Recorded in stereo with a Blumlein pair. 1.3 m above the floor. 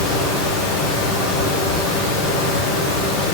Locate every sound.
0.0 s a fan: 35° left, 1.0 m